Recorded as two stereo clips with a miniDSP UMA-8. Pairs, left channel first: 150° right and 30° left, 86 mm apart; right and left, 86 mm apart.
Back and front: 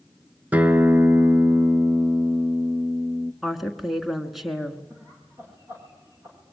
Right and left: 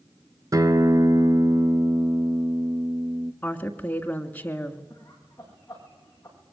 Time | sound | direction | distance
0.5 | a guitar | 90° left | 0.7 m
3.4 | a woman speaking | 55° right | 1.4 m
4.9 | laughter | 25° right | 9.5 m